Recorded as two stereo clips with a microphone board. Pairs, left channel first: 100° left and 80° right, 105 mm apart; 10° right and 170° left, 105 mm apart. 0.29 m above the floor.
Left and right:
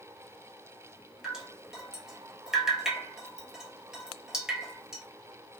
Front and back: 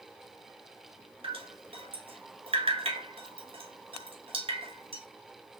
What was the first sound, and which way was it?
Dripping, 160° right.